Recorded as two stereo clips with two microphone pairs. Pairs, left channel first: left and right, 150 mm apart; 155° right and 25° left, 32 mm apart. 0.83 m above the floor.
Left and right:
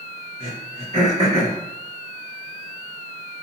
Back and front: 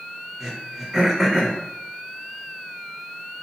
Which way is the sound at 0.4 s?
55° right.